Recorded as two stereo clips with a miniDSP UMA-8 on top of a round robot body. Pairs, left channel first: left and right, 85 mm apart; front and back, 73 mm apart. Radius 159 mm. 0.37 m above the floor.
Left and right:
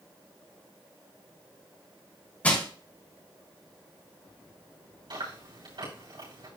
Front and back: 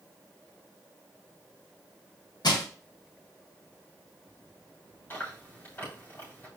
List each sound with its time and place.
2.4 s crushing: 15° left, 2.5 m
5.1 s chewing: 65° right, 7 m